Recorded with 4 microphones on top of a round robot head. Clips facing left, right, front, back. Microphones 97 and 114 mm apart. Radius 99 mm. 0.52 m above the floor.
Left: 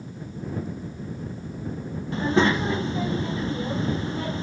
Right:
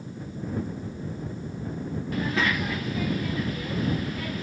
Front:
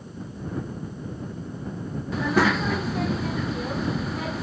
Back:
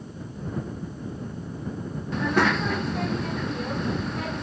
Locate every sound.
2.1 s a child speaking: 85° left